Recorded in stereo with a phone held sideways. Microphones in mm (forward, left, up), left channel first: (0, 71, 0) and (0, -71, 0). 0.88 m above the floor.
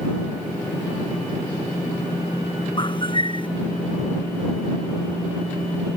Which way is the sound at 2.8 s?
35° left (ahead or behind).